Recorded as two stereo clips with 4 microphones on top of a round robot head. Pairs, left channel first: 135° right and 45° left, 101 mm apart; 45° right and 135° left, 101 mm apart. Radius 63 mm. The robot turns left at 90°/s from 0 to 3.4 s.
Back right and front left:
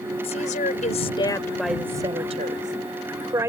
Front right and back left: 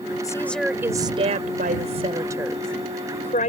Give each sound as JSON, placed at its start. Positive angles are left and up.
{"t": 0.2, "sound": "a woman speaking", "azimuth_deg": -100}